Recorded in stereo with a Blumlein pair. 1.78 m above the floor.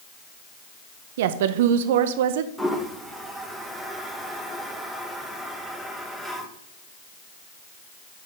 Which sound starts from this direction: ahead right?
A woman speaking, at 1.2 s.